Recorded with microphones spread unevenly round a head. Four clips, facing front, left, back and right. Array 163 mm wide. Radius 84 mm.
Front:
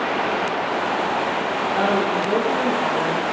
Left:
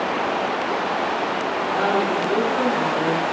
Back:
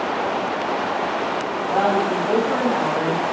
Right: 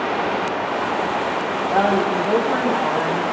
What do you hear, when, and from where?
1.7 s a woman speaking: 115° right, 3.5 m